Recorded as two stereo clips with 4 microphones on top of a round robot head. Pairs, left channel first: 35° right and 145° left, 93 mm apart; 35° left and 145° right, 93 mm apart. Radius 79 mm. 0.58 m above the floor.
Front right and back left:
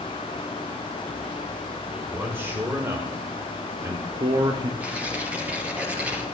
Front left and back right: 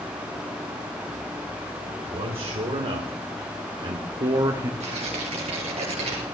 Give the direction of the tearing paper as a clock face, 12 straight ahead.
5 o'clock.